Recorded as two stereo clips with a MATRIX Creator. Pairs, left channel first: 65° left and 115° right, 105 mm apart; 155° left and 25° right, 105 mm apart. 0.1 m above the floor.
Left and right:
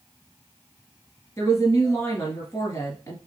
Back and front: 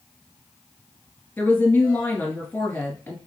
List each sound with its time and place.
1.4 s a woman speaking: 95° left, 1.3 m